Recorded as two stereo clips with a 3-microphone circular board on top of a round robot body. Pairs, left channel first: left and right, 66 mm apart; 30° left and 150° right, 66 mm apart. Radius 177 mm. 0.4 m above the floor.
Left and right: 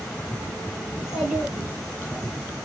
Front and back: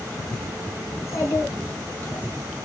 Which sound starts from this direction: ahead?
A child speaking, at 0.9 s.